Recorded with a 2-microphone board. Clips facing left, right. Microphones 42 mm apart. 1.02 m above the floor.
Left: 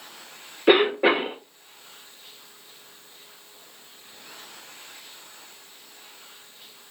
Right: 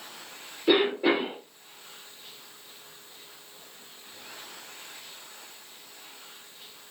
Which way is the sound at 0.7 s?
45° left (ahead or behind).